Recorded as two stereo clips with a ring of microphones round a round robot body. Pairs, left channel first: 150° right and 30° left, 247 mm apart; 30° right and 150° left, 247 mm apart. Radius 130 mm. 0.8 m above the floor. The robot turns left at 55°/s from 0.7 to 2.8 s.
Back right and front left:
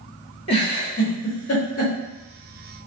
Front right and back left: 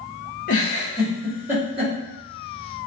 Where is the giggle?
85° right, 2 m; by 1.9 s 155° right, 2 m.